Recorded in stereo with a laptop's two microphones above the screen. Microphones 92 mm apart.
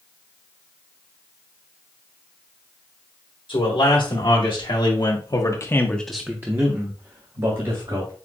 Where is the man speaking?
65° left (ahead or behind), 2 m; by 8.1 s 60° right (ahead or behind), 1.9 m.